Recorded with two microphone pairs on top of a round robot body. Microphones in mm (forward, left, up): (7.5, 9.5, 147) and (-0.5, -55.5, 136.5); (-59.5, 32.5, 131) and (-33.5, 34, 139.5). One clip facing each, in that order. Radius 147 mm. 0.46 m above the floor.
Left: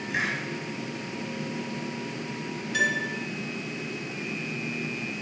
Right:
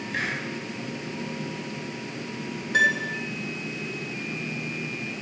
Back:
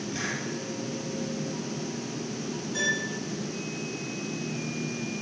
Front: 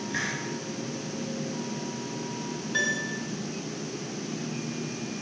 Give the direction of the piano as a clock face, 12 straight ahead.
2 o'clock.